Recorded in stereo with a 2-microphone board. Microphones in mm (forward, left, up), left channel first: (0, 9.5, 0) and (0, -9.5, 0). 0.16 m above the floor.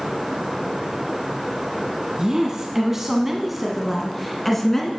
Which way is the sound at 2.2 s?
30° right (ahead or behind).